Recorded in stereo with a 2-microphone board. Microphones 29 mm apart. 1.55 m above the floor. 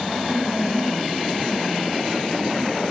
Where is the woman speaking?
50° right (ahead or behind), 8 m.